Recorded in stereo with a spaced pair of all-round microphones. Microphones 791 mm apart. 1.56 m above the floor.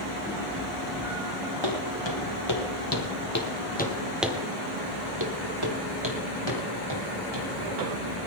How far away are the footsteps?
About 3.5 m.